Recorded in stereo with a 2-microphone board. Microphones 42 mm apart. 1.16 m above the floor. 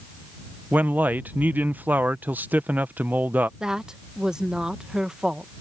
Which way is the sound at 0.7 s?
45° right (ahead or behind).